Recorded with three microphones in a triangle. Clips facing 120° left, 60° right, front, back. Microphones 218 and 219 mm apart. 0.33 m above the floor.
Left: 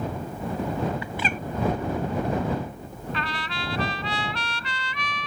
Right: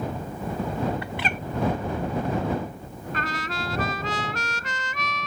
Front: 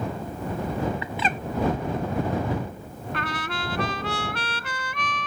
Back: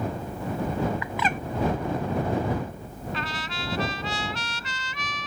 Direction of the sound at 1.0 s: 55° right.